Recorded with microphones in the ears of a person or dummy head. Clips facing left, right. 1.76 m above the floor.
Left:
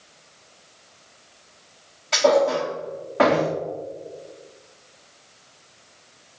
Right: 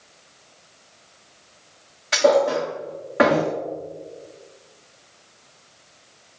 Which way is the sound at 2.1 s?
15° right (ahead or behind).